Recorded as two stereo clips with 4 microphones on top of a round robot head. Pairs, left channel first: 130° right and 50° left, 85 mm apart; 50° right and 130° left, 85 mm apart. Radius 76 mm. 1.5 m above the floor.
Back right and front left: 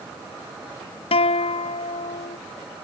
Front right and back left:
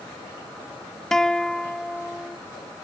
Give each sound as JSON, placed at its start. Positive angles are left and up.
{"t": 1.1, "sound": "a guitar", "azimuth_deg": -135}